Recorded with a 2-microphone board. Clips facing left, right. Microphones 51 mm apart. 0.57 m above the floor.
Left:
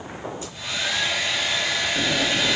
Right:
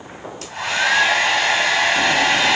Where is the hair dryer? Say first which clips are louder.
Right 11 dB; 85° right, 2.5 m.